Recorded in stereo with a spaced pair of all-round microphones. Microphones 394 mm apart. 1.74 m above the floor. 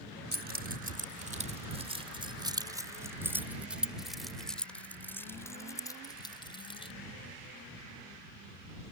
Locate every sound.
0.3 s keys jangling: 25° right (ahead or behind); by 6.9 s 15° left (ahead or behind)